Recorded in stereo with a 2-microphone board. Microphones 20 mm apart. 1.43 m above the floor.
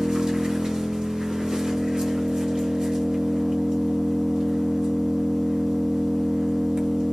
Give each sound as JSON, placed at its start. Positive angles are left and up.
{"t": 0.0, "sound": "an engine running", "side_deg": -45, "distance_m": 1.6}